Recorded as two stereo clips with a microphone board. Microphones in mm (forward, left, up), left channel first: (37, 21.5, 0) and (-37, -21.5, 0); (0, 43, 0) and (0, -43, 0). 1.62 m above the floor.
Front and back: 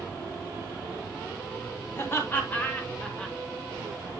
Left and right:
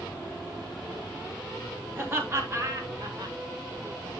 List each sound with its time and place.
1.9 s laughter: 30° right, 3.5 m; by 3.4 s 55° right, 2 m